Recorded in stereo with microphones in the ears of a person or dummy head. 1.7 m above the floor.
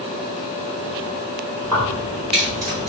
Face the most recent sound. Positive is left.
turn(degrees=-35)  # may be behind; listen again after turning